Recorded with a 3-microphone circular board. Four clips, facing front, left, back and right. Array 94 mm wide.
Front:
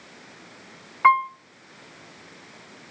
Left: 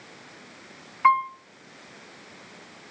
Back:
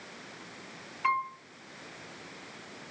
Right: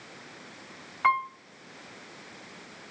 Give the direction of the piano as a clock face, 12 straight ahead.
12 o'clock.